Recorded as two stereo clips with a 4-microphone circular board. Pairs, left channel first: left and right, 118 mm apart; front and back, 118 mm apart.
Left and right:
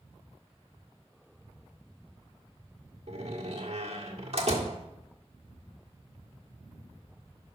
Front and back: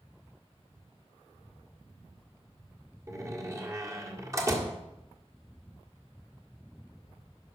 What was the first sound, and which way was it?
A door slam, 115° right.